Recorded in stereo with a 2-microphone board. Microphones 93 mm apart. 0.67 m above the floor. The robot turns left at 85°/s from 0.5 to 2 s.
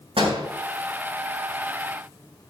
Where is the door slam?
85° right, 3.5 m.